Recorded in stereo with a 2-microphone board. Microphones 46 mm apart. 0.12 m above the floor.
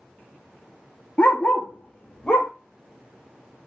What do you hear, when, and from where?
1.2 s a dog barking: 25° left (ahead or behind), 0.7 m; by 2.5 s 20° left (ahead or behind), 1.3 m